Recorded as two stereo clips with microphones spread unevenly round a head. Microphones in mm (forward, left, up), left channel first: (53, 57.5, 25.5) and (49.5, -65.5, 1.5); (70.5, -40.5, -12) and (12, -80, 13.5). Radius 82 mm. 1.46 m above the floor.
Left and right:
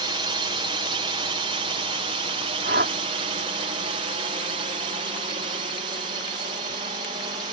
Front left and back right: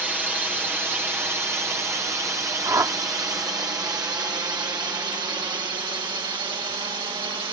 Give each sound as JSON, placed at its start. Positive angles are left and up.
{"t": 0.0, "sound": "a drone", "azimuth_deg": -65}
{"t": 2.6, "sound": "a whoosh", "azimuth_deg": -115}